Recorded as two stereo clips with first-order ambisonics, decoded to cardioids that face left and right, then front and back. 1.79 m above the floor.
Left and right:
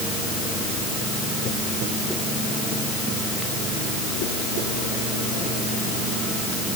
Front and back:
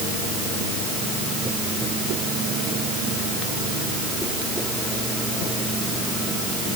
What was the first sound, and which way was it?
Only background noise.